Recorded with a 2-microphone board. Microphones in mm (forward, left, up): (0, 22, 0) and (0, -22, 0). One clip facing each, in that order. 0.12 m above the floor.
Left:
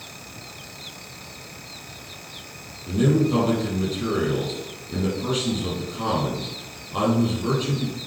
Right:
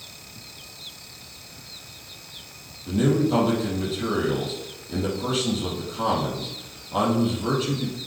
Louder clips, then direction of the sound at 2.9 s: Left 1 dB; 10° right (ahead or behind).